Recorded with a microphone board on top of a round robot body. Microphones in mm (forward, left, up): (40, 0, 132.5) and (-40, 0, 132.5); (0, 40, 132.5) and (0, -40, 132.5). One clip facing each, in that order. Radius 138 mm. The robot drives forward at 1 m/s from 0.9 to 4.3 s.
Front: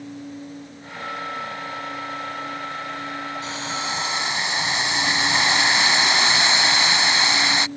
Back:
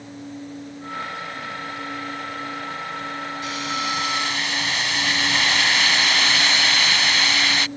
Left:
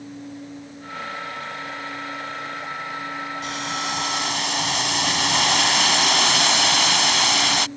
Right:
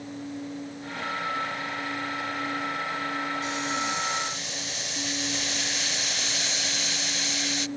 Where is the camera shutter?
I don't hear a camera shutter.